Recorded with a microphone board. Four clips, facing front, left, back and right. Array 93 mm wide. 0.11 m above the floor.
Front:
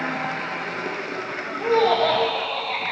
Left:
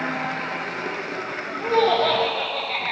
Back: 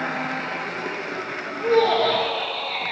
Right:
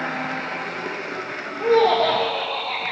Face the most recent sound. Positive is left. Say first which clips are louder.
# right 3 dB, even
turn(degrees=-80)